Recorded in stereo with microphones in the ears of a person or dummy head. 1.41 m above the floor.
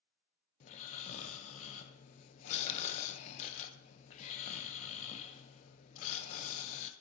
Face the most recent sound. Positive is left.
turn(degrees=40)  # may be behind; listen again after turning